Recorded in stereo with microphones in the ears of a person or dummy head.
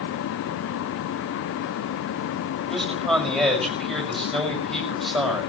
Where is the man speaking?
Centre (ahead or behind), 6 m.